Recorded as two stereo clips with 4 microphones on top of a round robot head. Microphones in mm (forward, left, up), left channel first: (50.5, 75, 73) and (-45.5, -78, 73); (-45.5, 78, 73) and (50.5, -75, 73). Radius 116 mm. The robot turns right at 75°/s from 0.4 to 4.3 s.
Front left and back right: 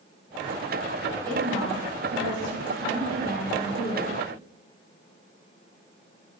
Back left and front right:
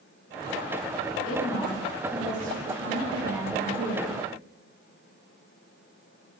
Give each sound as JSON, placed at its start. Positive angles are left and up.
{"t": 1.2, "sound": "a woman speaking", "azimuth_deg": 170, "distance_m": 3.0}